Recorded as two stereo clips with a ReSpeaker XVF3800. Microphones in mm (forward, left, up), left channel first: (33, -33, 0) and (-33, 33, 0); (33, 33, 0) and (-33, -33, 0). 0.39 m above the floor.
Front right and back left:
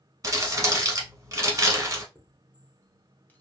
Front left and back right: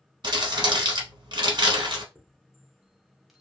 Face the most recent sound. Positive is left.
turn(degrees=-55)